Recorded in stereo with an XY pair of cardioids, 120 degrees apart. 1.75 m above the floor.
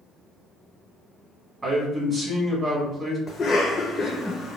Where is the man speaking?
20° right, 1.6 m.